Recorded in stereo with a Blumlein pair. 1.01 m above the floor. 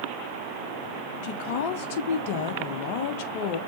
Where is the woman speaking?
50° left, 0.6 m.